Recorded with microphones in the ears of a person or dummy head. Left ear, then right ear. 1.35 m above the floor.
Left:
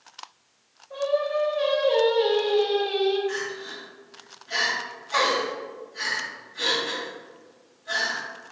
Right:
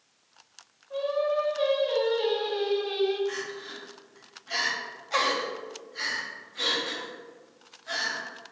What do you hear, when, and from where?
0.9 s singing: 30° right (ahead or behind), 1.5 m
3.3 s crying: 45° right (ahead or behind), 0.9 m